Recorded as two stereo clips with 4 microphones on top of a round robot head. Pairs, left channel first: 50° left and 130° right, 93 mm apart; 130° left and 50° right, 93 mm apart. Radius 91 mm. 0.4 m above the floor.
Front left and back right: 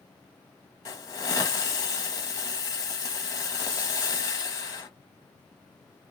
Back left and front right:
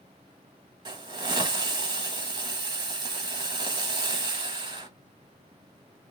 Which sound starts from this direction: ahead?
A hiss, at 0.8 s.